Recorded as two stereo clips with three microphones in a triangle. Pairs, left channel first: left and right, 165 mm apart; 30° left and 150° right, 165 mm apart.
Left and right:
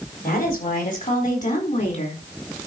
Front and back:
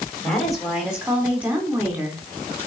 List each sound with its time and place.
0.2 s a woman speaking: 120° left, 4.5 m; by 2.2 s 135° left, 4 m